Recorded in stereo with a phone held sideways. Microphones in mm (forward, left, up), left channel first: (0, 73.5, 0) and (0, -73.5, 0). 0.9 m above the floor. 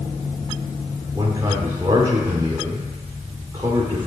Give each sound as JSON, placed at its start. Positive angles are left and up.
{"t": 1.1, "sound": "a man speaking", "side_deg": -25, "distance_m": 2.5}